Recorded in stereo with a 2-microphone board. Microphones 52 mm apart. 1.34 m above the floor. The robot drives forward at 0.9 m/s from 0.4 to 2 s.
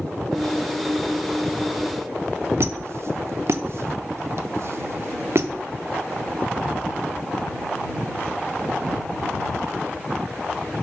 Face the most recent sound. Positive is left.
turn(degrees=-55)  # may be behind; listen again after turning